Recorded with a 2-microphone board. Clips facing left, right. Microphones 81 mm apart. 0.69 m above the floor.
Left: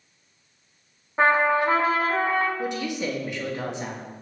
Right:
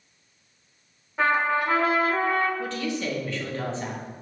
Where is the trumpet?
30° left (ahead or behind), 0.6 m.